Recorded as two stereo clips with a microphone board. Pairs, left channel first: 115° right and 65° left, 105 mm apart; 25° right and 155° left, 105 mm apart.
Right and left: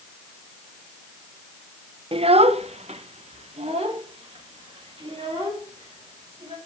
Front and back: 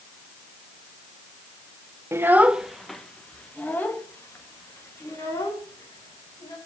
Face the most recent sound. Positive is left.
turn(degrees=35)